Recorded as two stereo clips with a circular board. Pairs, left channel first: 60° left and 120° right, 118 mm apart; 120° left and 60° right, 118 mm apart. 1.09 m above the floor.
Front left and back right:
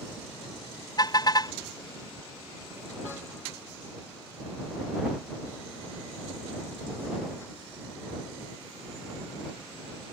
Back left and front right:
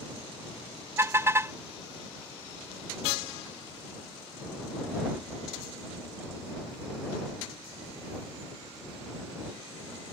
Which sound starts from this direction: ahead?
A car horn, at 1.0 s.